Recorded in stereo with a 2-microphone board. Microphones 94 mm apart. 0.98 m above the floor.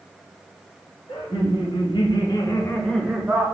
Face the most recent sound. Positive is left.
turn(degrees=-15)  # may be behind; listen again after turning